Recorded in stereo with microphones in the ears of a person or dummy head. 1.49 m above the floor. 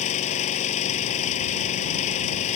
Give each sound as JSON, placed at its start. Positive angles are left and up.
{"t": 0.0, "sound": "an engine running", "side_deg": 40}